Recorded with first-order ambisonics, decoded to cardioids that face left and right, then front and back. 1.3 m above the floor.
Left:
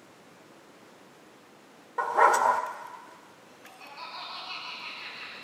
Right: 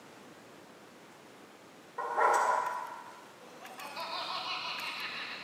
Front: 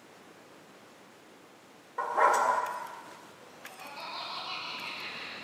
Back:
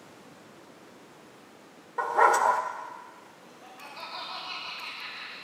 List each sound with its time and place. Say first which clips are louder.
2.0 s a dog barking: left 6 dB, back 3 dB; 100° left, 0.7 m
3.4 s laughter: right 5 dB, even; 85° right, 6 m